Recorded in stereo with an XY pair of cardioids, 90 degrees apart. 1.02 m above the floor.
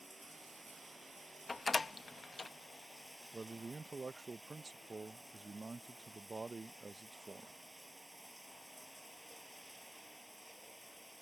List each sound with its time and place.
0.0 s running water: 10° right
1.5 s a door slam: 30° left
3.3 s a man speaking: 30° right